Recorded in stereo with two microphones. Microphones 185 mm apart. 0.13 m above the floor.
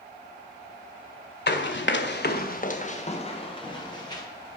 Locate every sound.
1.5 s running footsteps: 75° left (ahead or behind), 1.3 m; by 4.2 s 20° left (ahead or behind), 3.5 m